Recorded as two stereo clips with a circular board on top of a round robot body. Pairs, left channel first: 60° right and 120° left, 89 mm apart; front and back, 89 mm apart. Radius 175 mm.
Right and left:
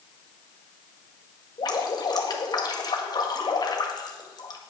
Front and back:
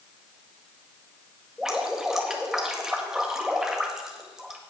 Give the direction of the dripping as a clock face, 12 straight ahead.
3 o'clock.